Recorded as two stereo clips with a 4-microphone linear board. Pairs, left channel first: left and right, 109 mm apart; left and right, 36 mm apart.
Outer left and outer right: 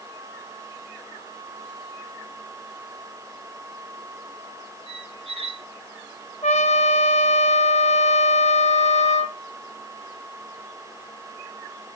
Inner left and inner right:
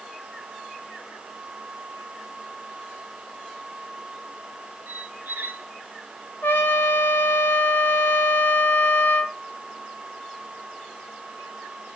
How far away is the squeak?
About 0.8 m.